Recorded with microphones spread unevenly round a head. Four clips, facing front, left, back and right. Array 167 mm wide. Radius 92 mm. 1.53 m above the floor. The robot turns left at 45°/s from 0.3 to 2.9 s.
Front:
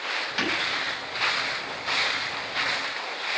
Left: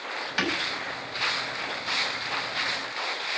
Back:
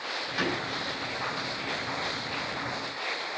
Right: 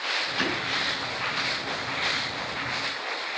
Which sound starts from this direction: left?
Breaking glass, at 0.4 s.